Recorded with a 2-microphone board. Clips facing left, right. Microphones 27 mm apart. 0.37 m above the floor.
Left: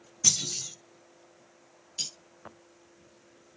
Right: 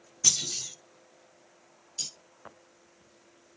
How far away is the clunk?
About 1.2 m.